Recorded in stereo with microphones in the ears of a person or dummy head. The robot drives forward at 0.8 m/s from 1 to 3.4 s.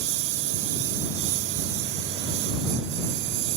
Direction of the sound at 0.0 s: 75° right (ahead or behind).